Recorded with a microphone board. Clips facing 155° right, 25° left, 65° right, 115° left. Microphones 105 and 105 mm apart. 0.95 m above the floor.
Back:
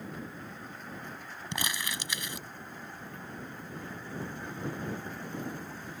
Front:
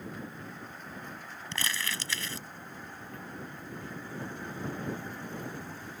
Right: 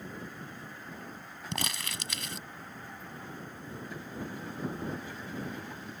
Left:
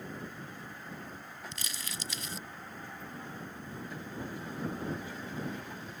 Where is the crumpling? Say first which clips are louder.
Even, right 7 dB; 85° right.